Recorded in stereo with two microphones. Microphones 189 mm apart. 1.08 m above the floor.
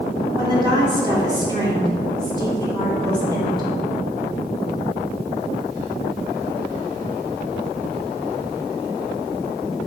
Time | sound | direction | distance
0.3 | a woman speaking | 20° right (ahead or behind) | 2.5 m